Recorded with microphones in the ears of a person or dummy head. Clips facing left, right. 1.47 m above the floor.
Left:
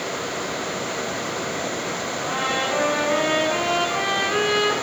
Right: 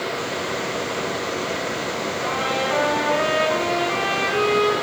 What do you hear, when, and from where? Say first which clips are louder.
2.2 s a trumpet: right 2 dB; 15° left (ahead or behind), 5.5 m